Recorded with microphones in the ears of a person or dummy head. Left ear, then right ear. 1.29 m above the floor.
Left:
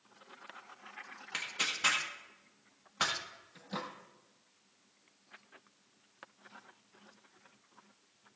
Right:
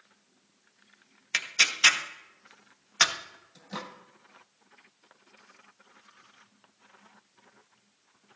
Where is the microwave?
5° right (ahead or behind), 0.8 m.